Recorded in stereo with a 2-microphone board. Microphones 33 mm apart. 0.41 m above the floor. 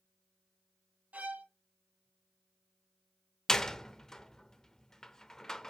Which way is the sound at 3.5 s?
15° left (ahead or behind).